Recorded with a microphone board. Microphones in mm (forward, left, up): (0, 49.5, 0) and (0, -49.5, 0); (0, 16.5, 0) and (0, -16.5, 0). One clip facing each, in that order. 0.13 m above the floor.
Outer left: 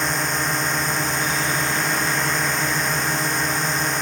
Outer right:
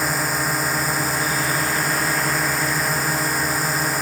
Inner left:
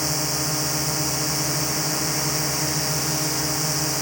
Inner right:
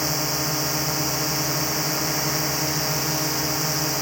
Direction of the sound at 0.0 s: 5° right (ahead or behind).